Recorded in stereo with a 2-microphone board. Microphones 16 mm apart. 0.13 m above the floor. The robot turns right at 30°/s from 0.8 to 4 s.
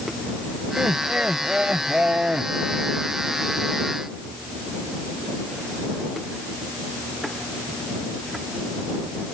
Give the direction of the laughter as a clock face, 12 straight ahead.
4 o'clock.